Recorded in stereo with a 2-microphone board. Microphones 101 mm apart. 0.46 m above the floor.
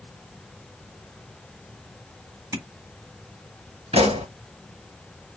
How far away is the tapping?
About 2 m.